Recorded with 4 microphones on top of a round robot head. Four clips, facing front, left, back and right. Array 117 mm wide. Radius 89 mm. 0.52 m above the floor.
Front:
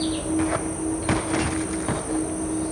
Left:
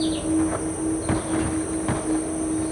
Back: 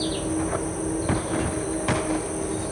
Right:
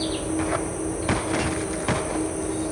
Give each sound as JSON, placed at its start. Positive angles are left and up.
{"t": 0.0, "sound": "an insect", "azimuth_deg": -110, "distance_m": 1.9}